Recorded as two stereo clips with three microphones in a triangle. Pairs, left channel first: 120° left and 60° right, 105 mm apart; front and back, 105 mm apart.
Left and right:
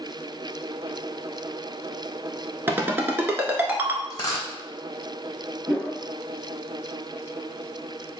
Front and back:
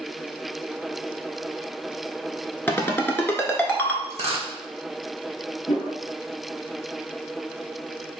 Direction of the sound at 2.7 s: 35° right.